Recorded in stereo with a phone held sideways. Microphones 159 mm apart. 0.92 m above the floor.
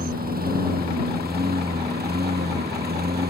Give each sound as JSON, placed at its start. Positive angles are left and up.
{"t": 0.0, "sound": "a lawn mower", "side_deg": -70}